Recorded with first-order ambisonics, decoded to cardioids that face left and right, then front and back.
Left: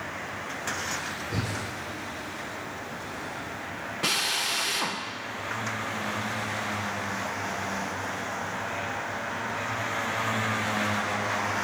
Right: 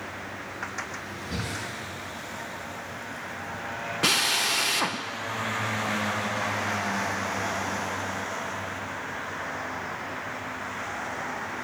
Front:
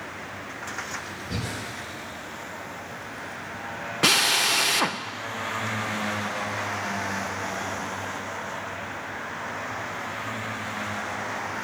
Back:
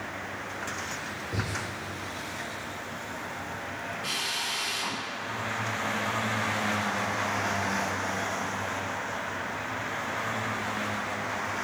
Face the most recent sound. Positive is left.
turn(degrees=-15)